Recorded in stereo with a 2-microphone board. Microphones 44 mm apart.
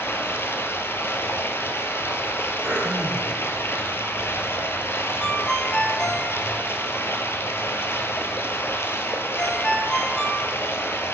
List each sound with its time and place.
0.0 s running water: 75° left (ahead or behind), 0.7 m
2.6 s throat clearing: 75° right (ahead or behind), 1.8 m
5.2 s a ringtone: 20° left (ahead or behind), 0.9 m